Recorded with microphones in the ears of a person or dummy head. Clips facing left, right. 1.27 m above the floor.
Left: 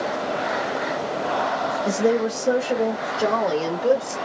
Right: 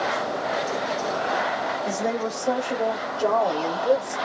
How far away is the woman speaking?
About 1.5 m.